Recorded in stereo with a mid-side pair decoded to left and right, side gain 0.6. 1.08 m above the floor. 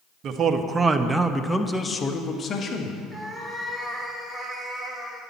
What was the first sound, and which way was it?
A man speaking, 50° right.